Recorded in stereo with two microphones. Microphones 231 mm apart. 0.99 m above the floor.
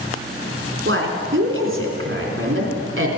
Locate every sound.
0.8 s a woman speaking: 65° right (ahead or behind), 3 m